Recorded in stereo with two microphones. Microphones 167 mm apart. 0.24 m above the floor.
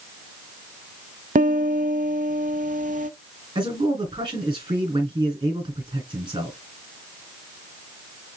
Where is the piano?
50° right (ahead or behind), 0.7 m.